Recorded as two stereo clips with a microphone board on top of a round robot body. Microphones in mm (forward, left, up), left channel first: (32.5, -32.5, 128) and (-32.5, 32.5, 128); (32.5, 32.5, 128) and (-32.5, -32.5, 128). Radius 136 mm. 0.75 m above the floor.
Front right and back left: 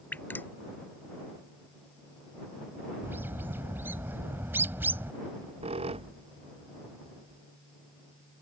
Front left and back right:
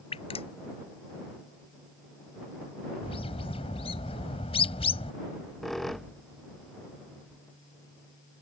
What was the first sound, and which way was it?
Dripping, 25° left.